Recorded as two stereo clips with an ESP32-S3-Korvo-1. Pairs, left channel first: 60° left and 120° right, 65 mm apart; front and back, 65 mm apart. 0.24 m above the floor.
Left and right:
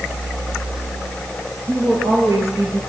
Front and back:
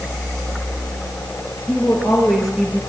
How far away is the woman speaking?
About 6 m.